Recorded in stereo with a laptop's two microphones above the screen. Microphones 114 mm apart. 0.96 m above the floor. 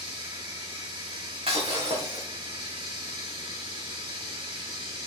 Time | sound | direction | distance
0.0 | running water | 45° right (ahead or behind) | 1.9 m
1.5 | breaking glass | 60° right (ahead or behind) | 3.5 m